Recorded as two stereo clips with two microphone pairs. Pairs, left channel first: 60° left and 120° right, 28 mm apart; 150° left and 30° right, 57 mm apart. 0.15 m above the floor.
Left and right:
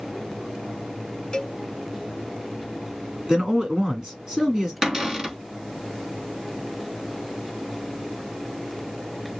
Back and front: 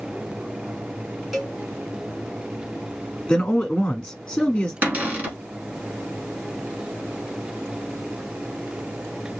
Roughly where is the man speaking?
Behind right.